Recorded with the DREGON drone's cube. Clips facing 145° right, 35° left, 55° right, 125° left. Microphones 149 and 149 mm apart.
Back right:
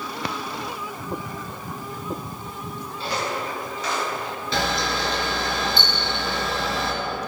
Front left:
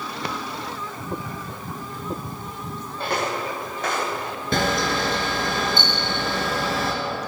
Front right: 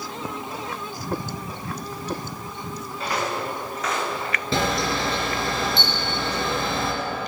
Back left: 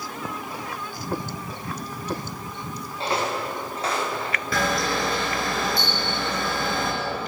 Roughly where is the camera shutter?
Ahead.